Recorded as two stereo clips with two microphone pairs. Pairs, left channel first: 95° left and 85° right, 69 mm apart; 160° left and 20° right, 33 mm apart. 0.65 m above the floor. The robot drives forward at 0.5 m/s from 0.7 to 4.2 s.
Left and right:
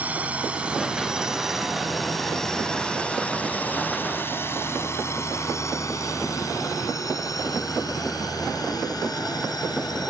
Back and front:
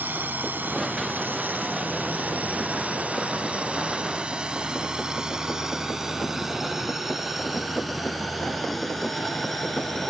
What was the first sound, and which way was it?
A drone, 20° right.